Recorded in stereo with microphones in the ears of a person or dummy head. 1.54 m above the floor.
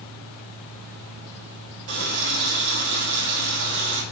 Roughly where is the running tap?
Right.